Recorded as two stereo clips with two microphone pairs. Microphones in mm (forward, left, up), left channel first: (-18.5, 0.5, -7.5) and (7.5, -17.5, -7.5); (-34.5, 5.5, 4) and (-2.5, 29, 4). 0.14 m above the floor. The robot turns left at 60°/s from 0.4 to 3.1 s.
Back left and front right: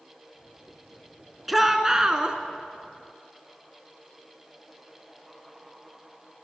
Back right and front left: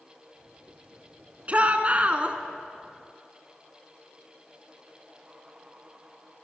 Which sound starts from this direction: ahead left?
A shout, at 1.5 s.